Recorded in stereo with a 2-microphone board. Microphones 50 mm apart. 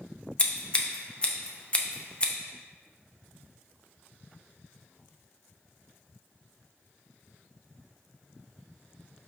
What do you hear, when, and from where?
0.4 s scissors: 25° left (ahead or behind), 0.5 m